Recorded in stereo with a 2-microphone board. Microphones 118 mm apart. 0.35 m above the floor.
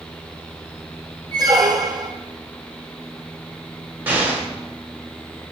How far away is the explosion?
About 1.1 m.